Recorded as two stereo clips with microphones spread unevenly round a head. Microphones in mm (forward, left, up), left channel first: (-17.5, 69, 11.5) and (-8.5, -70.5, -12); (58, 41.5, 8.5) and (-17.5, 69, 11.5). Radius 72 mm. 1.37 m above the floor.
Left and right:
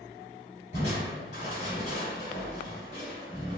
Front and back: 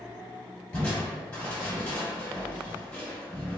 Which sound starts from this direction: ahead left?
Crushing, at 0.7 s.